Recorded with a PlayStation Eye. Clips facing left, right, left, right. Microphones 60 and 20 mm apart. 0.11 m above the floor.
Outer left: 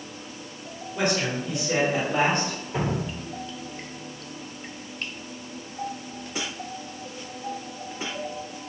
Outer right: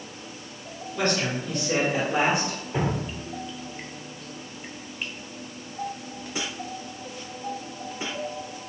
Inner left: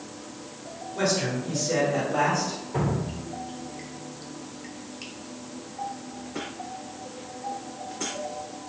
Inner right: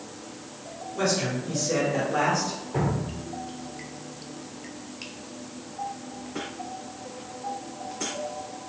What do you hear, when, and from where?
0.9 s a man speaking: 15° left (ahead or behind), 1.5 m; by 2.6 s 15° right (ahead or behind), 1.4 m
2.7 s dripping: 10° right (ahead or behind), 0.6 m